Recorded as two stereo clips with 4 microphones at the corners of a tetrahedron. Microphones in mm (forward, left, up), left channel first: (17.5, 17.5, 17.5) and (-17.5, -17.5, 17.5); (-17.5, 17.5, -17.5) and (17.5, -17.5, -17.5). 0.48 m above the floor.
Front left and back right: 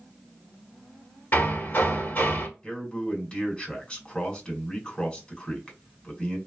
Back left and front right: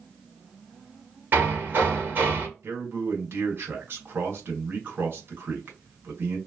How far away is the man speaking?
About 1.6 m.